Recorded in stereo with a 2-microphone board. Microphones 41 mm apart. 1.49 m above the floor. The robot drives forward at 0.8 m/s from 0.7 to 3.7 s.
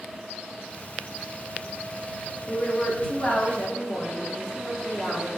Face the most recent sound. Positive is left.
turn(degrees=20)  # may be behind; listen again after turning